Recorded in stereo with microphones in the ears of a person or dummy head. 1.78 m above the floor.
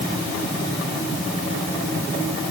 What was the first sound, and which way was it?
Only background noise.